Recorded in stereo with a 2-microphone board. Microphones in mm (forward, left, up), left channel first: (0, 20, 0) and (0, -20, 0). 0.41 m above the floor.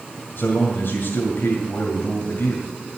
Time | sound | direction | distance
0.4 | a man speaking | 60° left (ahead or behind) | 1.9 m